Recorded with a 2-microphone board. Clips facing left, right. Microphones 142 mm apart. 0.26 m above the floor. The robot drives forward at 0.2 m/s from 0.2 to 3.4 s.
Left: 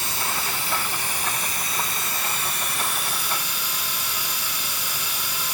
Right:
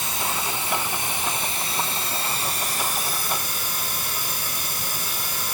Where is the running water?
20° right (ahead or behind), 1.1 m; by 5.5 s 45° right (ahead or behind), 0.5 m.